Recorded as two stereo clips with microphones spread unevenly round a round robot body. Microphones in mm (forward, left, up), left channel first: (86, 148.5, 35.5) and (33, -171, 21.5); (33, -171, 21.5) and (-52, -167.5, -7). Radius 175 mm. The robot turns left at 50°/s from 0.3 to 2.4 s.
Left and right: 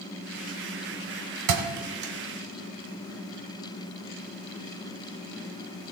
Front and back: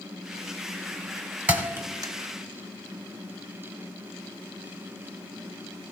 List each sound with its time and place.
1.5 s a thud: 95° right, 1.2 m; by 2.1 s 125° right, 1.2 m